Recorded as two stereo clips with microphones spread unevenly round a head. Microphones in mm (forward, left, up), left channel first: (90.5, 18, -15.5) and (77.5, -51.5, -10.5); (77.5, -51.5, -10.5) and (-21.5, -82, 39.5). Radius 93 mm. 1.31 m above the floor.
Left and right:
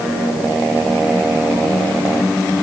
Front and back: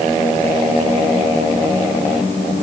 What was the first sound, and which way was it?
Only background noise.